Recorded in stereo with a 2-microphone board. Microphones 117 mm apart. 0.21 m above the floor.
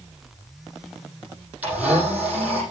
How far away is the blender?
About 8 m.